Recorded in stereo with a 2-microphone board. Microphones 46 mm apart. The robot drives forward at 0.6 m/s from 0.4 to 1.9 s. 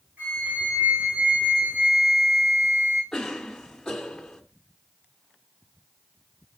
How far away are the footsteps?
I don't hear footsteps.